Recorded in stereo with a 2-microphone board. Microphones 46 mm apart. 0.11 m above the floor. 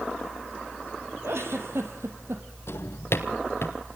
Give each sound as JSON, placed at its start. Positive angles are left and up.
{"t": 1.2, "sound": "a giggle", "side_deg": -70, "distance_m": 3.0}
{"t": 2.7, "sound": "a drawer", "side_deg": 70, "distance_m": 1.5}